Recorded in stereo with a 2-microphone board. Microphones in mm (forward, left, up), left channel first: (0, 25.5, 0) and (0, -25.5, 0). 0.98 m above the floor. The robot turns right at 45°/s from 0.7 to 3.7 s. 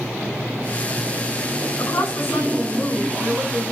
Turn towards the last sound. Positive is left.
turn(degrees=-155)